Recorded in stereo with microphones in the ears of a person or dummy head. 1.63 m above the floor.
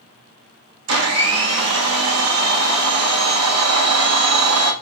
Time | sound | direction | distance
0.9 | a blender | 85° right | 1.0 m